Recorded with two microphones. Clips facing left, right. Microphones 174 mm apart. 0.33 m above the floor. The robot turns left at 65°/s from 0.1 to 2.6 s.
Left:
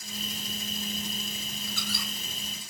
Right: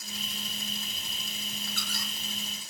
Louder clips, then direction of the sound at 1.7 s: Left 3 dB; 60° right (ahead or behind).